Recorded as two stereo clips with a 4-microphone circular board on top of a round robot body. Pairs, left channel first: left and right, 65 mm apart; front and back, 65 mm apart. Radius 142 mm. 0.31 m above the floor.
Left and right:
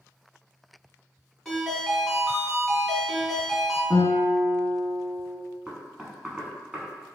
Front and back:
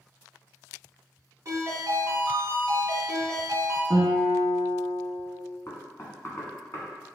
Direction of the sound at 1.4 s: 170° left.